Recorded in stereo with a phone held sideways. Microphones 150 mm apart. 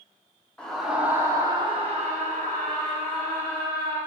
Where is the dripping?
No dripping in this recording.